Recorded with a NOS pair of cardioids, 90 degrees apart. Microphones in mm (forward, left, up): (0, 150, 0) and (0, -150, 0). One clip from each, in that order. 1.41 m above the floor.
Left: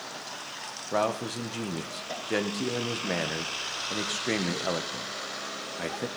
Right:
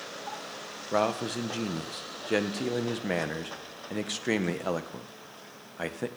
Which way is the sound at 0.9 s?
10° right.